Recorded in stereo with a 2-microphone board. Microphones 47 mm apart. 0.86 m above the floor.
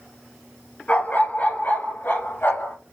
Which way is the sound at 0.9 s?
30° left (ahead or behind).